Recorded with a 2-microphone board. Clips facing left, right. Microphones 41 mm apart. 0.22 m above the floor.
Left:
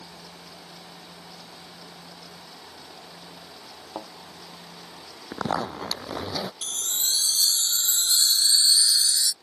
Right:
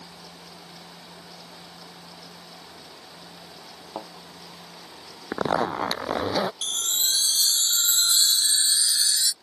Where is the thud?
5° right (ahead or behind).